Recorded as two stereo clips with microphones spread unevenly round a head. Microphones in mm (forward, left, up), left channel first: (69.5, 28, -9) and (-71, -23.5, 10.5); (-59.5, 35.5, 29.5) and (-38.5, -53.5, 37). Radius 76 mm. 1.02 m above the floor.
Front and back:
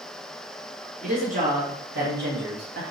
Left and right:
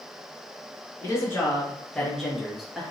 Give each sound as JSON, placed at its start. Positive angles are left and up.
{"t": 1.0, "sound": "a woman speaking", "azimuth_deg": 155, "distance_m": 1.3}